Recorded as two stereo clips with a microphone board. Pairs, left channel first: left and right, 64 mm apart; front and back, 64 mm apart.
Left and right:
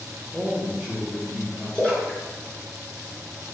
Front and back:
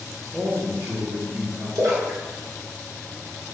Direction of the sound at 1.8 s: 160° left.